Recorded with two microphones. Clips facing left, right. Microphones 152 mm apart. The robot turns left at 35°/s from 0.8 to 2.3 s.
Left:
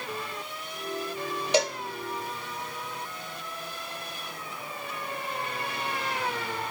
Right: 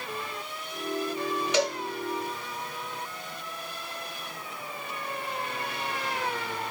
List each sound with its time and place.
1.5 s a cowbell: 35° left (ahead or behind), 0.8 m; by 1.8 s 30° left (ahead or behind), 0.8 m